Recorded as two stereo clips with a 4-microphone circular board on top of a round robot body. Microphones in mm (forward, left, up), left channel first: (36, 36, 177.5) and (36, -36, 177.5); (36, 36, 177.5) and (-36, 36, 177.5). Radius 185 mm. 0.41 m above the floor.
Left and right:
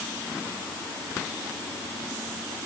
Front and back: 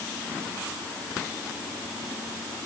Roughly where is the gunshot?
I don't hear a gunshot.